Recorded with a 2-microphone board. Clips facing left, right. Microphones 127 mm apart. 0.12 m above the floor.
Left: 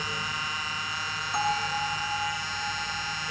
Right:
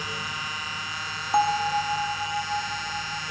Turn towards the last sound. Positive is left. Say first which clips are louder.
# right 6 dB
turn(degrees=-60)  # may be behind; listen again after turning